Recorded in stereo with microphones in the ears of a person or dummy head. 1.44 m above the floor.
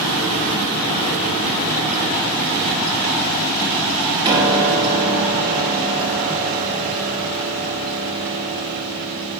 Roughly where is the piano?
Right.